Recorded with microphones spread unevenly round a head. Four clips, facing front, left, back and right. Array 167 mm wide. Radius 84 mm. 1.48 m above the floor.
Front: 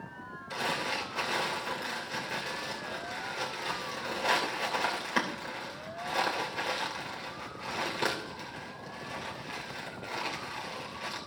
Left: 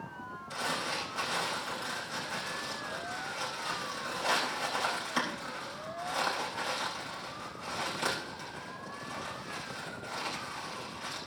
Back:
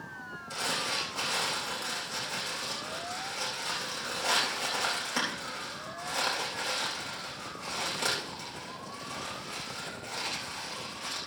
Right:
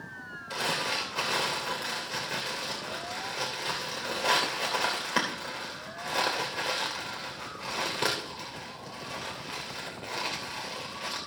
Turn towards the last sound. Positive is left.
turn(degrees=-70)